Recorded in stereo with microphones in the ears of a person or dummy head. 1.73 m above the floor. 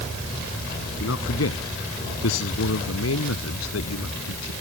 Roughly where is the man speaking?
Left.